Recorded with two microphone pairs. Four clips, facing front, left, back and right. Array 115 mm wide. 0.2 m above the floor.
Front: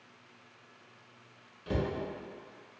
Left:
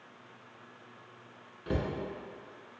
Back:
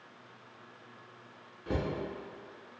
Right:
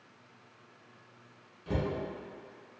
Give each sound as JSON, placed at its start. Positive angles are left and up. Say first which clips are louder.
{"t": 1.7, "sound": "a cupboard door", "louder": "even, front 1 dB", "azimuth_deg": 100, "distance_m": 0.9}